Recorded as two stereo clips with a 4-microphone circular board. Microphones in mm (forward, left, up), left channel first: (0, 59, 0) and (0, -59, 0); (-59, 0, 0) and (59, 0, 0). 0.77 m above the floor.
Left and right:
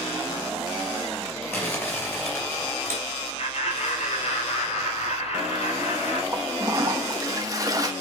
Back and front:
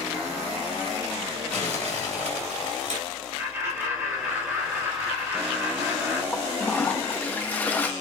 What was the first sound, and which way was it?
Crumpling, 20° left.